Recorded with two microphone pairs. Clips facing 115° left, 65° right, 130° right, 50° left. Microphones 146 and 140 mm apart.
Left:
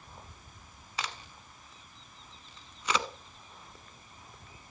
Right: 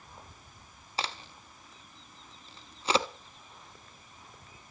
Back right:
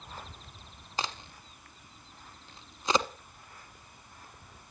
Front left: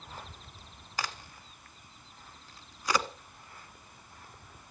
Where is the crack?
85° right, 1.0 m.